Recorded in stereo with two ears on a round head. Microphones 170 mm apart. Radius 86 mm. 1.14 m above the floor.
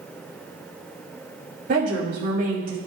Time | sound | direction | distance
1.7 | a woman speaking | 45° right (ahead or behind) | 6 m